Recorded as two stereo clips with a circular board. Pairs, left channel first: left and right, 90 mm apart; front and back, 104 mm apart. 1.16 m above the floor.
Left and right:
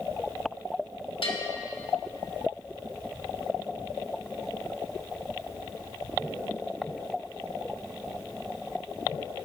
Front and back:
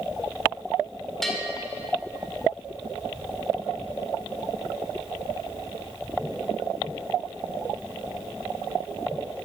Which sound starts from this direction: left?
A bell, at 1.2 s.